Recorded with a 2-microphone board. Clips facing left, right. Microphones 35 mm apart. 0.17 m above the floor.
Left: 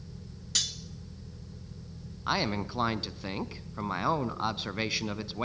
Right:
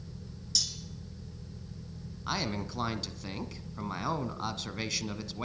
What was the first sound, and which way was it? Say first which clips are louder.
Cutlery clinking: left 4 dB; 55° left (ahead or behind).